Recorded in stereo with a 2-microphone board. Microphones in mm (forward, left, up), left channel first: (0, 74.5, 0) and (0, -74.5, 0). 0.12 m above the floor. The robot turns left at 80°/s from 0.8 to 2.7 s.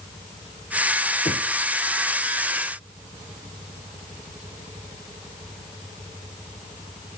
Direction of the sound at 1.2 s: 50° left (ahead or behind).